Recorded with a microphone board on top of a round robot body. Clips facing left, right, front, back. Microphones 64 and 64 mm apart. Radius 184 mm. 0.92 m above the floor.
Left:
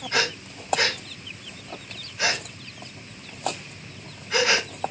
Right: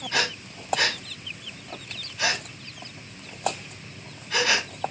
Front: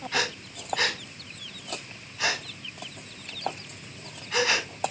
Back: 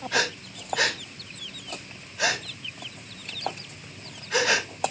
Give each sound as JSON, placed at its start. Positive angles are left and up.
{"t": 0.1, "sound": "breathing", "azimuth_deg": 160, "distance_m": 3.0}